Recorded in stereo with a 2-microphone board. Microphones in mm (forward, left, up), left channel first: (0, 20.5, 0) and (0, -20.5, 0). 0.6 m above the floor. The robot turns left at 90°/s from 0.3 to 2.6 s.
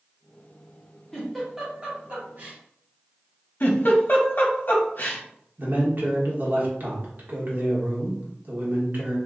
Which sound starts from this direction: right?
A man speaking, at 5.6 s.